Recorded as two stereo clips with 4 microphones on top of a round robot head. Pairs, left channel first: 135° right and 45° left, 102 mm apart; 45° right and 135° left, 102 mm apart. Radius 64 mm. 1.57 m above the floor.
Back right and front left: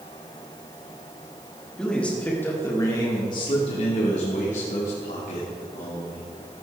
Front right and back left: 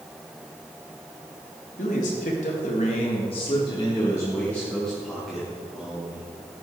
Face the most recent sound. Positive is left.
turn(degrees=-145)